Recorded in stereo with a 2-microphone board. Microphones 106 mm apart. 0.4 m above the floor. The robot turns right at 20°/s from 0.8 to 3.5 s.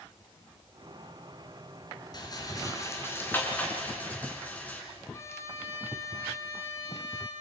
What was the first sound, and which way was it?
A rattle, 40° left (ahead or behind).